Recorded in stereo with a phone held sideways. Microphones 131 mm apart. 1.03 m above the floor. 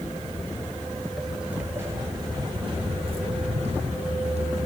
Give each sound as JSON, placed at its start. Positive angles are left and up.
{"t": 0.3, "sound": "footsteps", "side_deg": 35, "distance_m": 1.1}